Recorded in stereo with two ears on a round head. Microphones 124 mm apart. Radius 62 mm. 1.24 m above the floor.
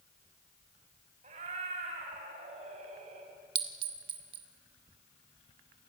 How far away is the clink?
About 1.2 m.